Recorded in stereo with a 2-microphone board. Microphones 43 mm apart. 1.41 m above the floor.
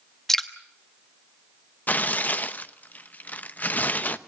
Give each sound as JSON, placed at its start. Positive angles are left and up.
{"t": 0.3, "sound": "dripping", "side_deg": 10, "distance_m": 1.2}
{"t": 1.9, "sound": "tearing paper", "side_deg": 40, "distance_m": 0.7}